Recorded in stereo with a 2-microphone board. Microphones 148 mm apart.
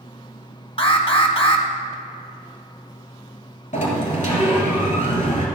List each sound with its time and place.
0.8 s an alarm: 40° left (ahead or behind), 0.9 m
3.7 s a sliding door: 55° left (ahead or behind), 1.8 m